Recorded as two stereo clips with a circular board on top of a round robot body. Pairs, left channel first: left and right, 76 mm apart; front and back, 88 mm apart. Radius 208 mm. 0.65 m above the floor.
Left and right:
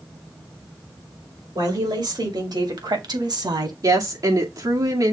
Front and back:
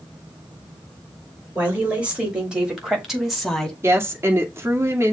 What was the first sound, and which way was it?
A woman speaking, 105° right.